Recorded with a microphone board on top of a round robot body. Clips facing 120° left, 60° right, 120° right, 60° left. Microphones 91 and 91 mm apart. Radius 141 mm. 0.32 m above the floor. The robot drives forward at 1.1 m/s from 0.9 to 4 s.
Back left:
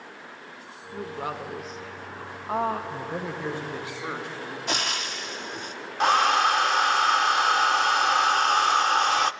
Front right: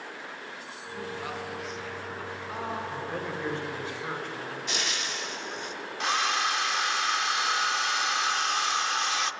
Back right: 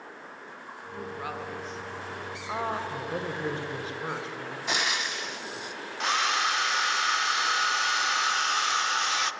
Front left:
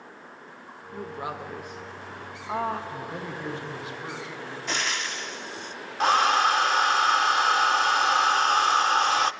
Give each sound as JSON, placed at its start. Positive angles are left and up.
{"t": 0.9, "sound": "a woman speaking", "azimuth_deg": 95, "distance_m": 1.6}
{"t": 2.9, "sound": "a man speaking", "azimuth_deg": -160, "distance_m": 2.0}
{"t": 4.7, "sound": "frying", "azimuth_deg": 160, "distance_m": 1.1}
{"t": 6.0, "sound": "a hair dryer", "azimuth_deg": 95, "distance_m": 0.6}